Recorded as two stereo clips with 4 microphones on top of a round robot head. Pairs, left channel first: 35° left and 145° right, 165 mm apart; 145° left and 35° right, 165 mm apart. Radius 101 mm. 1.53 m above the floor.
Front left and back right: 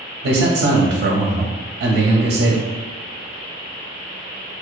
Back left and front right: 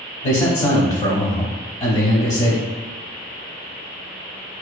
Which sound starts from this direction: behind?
A man speaking, at 0.2 s.